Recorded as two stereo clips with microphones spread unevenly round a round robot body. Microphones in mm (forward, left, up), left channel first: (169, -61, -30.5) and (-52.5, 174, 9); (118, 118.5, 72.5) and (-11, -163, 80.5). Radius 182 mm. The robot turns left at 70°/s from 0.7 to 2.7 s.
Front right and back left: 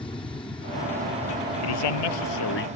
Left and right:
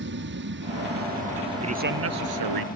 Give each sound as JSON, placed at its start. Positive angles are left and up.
{"t": 0.0, "sound": "an aircraft", "azimuth_deg": -120}
{"t": 1.6, "sound": "a man speaking", "azimuth_deg": -40}